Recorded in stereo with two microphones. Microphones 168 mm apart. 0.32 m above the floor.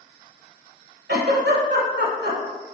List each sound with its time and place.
1.1 s a giggle: 85° right, 0.7 m